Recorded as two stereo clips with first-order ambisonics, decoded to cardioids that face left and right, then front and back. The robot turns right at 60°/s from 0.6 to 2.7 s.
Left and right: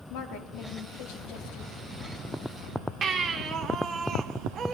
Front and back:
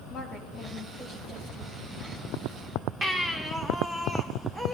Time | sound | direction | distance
0.1 | a woman speaking | 60° left | 1.2 m
3.0 | a baby crying | 105° right | 0.7 m